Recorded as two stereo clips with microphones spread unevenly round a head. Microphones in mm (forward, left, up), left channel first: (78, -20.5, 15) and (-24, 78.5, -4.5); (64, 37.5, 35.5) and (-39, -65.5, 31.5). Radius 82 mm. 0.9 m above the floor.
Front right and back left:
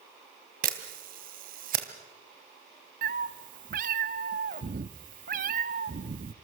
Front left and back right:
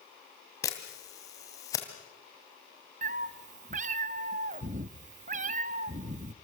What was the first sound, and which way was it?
A camera shutter, 115° left.